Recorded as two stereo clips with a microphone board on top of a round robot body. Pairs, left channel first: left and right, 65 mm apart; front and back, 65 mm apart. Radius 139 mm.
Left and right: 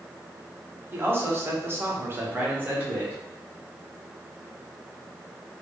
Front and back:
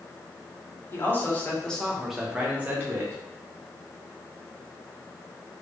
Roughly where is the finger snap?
No finger snap in this recording.